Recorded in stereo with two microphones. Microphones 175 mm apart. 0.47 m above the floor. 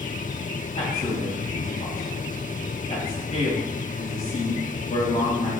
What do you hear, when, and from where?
0.8 s a man speaking: 50° left (ahead or behind), 2.5 m